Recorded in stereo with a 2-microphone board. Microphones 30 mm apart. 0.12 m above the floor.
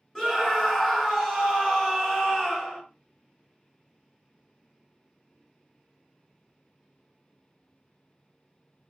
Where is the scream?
15° left (ahead or behind), 1.5 m.